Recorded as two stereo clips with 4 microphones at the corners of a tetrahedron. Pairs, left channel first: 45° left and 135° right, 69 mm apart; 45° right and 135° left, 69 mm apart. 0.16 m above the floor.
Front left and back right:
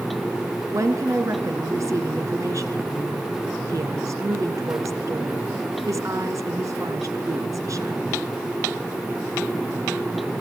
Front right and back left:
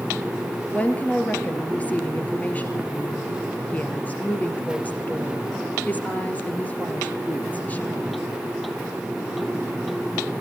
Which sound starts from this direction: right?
A woman speaking, at 0.7 s.